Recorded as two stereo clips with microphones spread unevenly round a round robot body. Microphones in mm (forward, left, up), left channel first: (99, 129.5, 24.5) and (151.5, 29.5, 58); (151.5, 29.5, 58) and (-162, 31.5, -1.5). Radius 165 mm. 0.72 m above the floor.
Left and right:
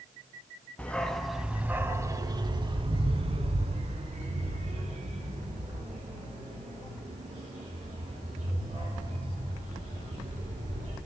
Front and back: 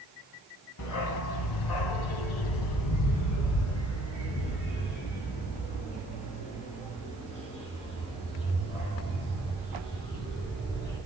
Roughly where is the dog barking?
Ahead left.